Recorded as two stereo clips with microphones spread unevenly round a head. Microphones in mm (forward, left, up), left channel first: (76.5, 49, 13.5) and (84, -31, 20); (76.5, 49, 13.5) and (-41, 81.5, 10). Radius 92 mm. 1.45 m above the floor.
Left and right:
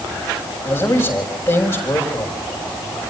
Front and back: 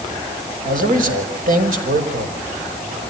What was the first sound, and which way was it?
A man speaking, 165° left.